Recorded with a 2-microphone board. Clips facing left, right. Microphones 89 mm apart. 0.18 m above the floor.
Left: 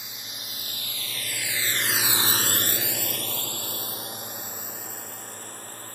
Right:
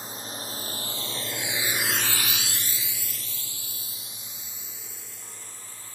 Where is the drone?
40° right (ahead or behind); by 6.0 s 55° left (ahead or behind).